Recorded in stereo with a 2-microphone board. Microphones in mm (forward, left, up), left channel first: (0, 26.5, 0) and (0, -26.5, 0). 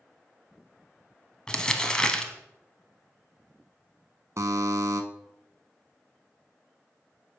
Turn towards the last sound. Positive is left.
turn(degrees=-70)  # may be behind; listen again after turning